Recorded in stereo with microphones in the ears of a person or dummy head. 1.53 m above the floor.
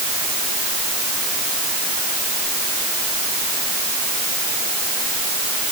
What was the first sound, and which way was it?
Only background noise.